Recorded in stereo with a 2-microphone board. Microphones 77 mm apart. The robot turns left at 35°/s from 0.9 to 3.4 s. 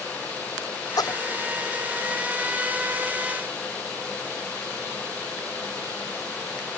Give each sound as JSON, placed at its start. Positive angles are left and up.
{"t": 1.0, "sound": "a splash", "side_deg": 55}